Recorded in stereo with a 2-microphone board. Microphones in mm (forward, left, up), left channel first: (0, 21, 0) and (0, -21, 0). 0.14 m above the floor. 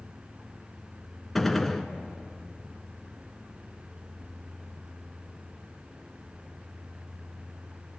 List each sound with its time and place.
1.4 s a gunshot: 5° left (ahead or behind), 1.5 m